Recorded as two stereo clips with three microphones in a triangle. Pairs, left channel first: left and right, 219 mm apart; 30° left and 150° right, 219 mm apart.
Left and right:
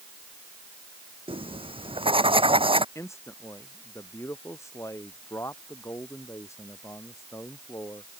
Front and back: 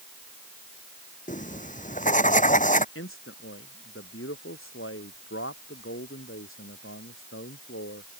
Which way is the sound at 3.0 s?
15° left.